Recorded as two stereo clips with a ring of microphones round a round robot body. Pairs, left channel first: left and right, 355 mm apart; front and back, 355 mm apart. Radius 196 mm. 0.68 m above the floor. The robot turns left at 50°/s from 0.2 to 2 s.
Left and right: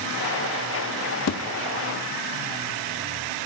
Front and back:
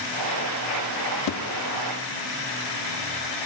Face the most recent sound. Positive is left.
turn(degrees=5)